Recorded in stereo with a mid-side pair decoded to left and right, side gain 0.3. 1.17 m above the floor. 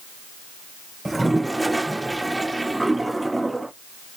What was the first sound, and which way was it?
A toilet flushing, 20° right.